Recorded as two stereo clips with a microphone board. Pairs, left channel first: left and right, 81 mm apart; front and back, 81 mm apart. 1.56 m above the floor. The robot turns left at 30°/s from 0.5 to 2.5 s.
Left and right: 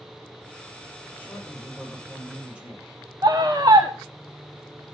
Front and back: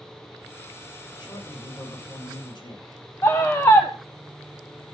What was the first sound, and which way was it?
A man speaking, 25° left.